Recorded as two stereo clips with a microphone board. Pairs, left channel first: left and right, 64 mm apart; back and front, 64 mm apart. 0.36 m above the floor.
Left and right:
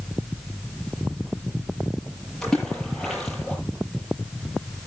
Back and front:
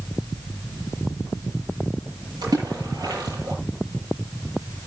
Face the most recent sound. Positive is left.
turn(degrees=10)